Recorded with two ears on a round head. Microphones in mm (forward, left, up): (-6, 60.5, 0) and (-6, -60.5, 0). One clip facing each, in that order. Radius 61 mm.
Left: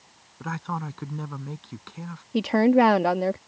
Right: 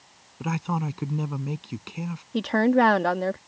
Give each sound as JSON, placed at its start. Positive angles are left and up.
{"t": 0.4, "sound": "a man speaking", "side_deg": -20}
{"t": 2.3, "sound": "a woman speaking", "side_deg": 10}